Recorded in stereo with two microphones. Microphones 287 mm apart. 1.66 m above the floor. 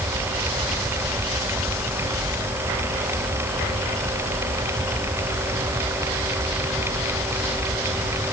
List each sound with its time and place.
Only background noise.